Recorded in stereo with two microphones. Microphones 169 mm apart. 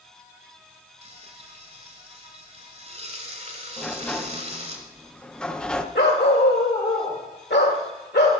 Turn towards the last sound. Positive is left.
turn(degrees=80)